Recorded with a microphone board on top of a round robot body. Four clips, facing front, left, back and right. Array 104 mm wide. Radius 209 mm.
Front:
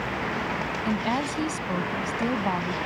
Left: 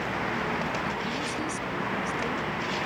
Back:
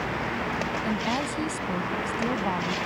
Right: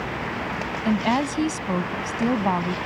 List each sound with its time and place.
0.8 s a woman speaking: 80° right